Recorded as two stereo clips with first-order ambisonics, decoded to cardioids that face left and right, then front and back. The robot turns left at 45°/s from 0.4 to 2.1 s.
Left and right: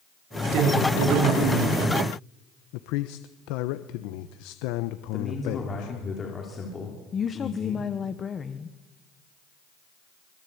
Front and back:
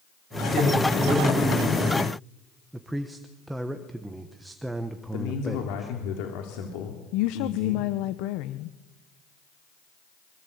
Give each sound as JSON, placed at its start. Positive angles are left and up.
{"t": 0.5, "sound": "a man speaking", "azimuth_deg": -65, "distance_m": 5.5}
{"t": 2.7, "sound": "a man speaking", "azimuth_deg": 95, "distance_m": 1.1}
{"t": 5.1, "sound": "a man speaking", "azimuth_deg": 20, "distance_m": 3.5}
{"t": 7.1, "sound": "a woman speaking", "azimuth_deg": 20, "distance_m": 0.9}